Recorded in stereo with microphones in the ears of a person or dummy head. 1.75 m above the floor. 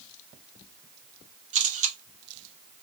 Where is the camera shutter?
40° right (ahead or behind), 1.3 m.